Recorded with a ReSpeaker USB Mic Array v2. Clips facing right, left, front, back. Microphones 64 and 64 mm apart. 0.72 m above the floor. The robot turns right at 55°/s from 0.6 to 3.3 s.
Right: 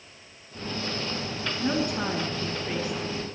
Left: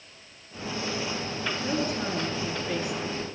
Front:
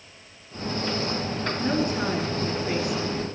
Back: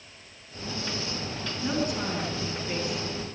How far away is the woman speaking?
About 5.5 m.